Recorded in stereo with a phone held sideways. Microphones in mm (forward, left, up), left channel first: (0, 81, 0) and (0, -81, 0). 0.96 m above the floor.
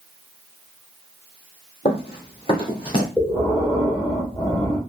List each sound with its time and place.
1.9 s running footsteps: 35° left (ahead or behind), 1.5 m; by 3.1 s 30° left (ahead or behind), 2.0 m
3.2 s breathing: 25° left (ahead or behind), 2 m